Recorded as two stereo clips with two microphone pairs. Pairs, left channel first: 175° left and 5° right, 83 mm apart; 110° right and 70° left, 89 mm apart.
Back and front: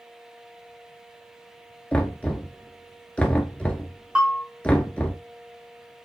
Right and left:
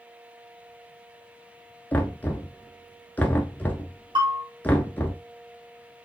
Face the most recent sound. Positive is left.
turn(degrees=70)